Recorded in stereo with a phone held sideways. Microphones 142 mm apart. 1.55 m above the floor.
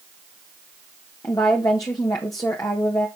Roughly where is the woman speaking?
Left.